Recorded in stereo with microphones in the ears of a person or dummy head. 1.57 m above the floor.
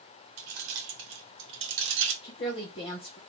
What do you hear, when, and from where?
0.4 s keys jangling: 45° right (ahead or behind), 0.6 m; by 2.1 s 60° right (ahead or behind), 1.3 m
2.2 s a woman speaking: 20° left (ahead or behind), 0.7 m